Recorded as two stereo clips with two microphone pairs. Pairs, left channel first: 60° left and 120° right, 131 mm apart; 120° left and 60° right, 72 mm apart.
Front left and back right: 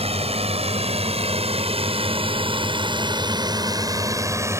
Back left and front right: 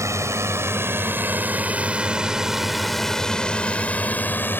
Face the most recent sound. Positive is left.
turn(degrees=175)